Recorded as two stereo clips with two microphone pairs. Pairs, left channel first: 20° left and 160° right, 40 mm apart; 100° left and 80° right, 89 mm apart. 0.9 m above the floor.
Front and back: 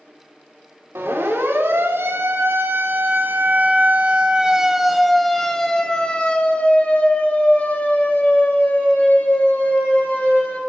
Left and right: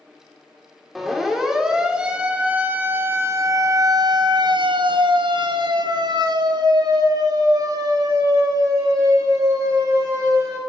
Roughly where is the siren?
Behind.